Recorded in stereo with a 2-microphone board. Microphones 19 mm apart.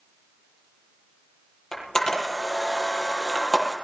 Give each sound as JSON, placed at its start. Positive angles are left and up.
{"t": 1.7, "sound": "a camera shutter", "side_deg": 25, "distance_m": 8.5}